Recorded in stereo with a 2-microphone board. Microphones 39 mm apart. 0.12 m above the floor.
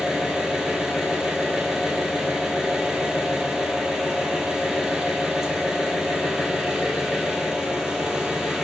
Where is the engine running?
15° right (ahead or behind), 0.9 m.